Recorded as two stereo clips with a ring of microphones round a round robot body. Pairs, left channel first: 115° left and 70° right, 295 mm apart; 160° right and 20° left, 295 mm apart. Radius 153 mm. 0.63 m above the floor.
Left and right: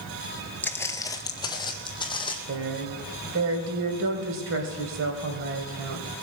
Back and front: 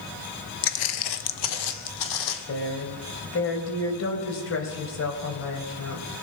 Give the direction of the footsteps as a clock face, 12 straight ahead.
6 o'clock.